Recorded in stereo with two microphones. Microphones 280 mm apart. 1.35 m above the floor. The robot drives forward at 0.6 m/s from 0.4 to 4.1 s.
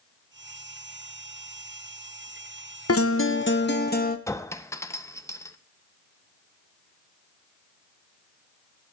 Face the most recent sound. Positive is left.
turn(degrees=10)  # may be behind; listen again after turning